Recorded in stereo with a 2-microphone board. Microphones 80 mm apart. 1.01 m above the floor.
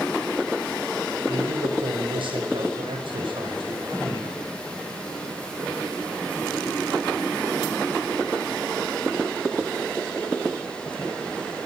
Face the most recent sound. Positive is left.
turn(degrees=-85)